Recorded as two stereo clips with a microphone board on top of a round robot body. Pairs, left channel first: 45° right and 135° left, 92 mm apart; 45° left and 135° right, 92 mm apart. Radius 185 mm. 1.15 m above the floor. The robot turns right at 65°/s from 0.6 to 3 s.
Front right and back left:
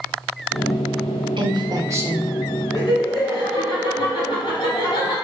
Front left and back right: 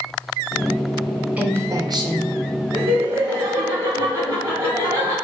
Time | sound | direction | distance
1.4 | a woman speaking | 150° left | 0.9 m
2.7 | laughter | 90° right | 1.5 m